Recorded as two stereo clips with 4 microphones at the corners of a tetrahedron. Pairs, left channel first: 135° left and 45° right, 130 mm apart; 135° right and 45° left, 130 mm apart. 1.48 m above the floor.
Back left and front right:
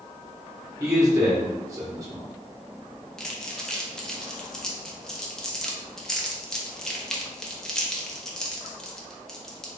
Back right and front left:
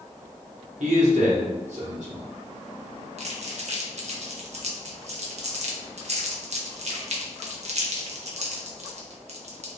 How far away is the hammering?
I don't hear hammering.